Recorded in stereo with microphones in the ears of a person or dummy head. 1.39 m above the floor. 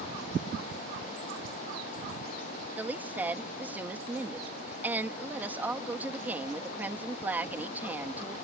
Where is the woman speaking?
10° right (ahead or behind).